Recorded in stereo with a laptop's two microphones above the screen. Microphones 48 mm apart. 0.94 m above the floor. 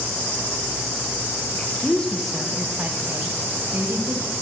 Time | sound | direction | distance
1.5 | a woman speaking | 40° left (ahead or behind) | 1.1 m